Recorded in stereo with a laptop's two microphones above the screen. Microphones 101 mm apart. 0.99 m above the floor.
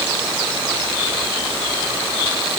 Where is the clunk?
I don't hear a clunk.